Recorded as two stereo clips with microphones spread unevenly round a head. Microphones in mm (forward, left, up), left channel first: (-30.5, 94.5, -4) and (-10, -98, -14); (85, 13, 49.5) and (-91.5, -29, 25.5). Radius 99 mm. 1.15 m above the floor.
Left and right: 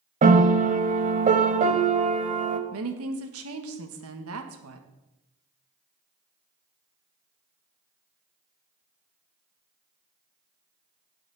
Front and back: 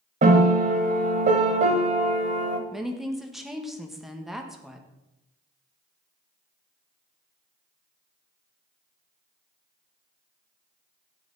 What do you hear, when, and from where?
0.2 s a piano: 120° right, 1.2 m
2.7 s a woman speaking: 80° right, 1.4 m